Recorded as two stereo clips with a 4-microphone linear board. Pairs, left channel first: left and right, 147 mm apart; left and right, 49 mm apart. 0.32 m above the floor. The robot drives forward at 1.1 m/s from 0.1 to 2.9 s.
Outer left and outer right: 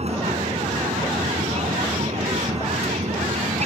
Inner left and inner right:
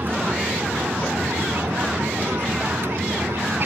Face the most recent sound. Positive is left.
turn(degrees=-50)  # may be behind; listen again after turning